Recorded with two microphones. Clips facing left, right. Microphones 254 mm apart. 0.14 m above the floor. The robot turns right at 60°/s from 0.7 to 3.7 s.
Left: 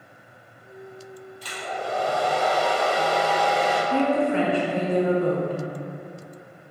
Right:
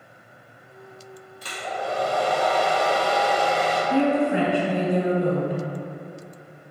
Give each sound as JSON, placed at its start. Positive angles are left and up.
{"t": 1.4, "sound": "a hair dryer", "azimuth_deg": -130, "distance_m": 1.3}
{"t": 3.9, "sound": "a woman speaking", "side_deg": -15, "distance_m": 1.0}